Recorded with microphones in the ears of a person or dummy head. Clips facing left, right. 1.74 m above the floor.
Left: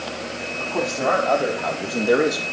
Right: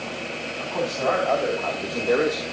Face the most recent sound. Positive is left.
turn(degrees=5)  # may be behind; listen again after turning